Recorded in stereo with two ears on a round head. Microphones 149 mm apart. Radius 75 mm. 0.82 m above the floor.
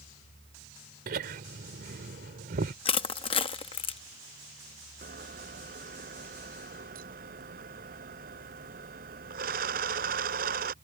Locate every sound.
1.1 s laughter: 65° right (ahead or behind)
2.9 s crushing: 30° left (ahead or behind)
5.0 s a camera shutter: 55° right (ahead or behind)